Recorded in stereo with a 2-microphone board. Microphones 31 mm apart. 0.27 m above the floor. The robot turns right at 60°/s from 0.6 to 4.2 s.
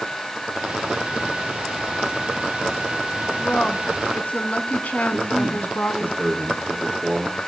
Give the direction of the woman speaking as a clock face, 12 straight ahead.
11 o'clock.